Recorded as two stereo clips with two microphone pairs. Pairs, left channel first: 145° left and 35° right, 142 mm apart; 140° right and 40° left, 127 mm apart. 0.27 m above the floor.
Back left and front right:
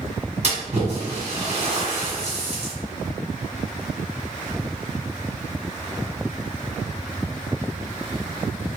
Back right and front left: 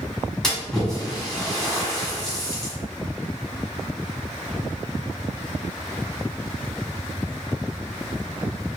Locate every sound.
0.4 s a splash: 50° right, 1.6 m